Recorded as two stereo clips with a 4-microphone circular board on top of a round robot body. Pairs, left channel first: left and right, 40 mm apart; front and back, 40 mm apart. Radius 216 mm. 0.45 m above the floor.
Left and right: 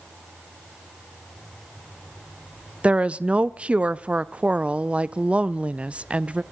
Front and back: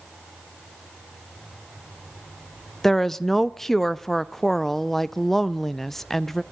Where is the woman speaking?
75° right, 0.8 m.